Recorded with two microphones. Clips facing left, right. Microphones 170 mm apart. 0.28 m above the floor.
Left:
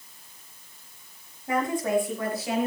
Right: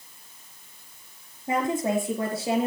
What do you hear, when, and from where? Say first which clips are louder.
1.5 s a woman speaking: even; 25° right (ahead or behind), 5.5 m; by 2.7 s 30° right (ahead or behind), 4.5 m